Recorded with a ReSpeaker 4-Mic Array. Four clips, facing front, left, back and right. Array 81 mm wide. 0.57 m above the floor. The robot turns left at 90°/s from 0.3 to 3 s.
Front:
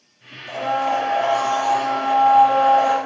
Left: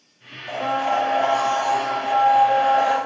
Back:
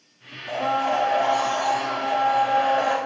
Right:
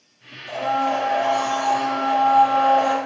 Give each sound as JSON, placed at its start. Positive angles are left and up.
{"t": 0.5, "sound": "a blender", "azimuth_deg": 130, "distance_m": 1.6}